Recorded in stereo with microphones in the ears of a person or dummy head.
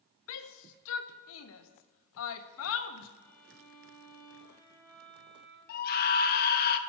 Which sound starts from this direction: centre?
A violin, at 3.2 s.